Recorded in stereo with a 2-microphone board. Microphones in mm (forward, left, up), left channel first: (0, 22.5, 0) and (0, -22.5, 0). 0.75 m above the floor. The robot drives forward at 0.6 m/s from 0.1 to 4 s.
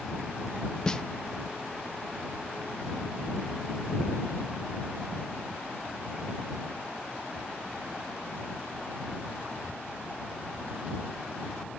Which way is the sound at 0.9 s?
20° left (ahead or behind).